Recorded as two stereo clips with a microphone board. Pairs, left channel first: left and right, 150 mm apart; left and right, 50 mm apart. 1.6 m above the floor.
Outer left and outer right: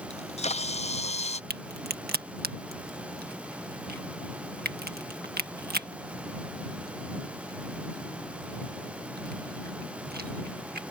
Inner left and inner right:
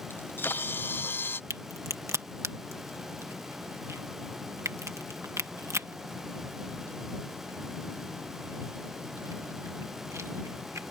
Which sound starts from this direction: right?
A crack, at 1.5 s.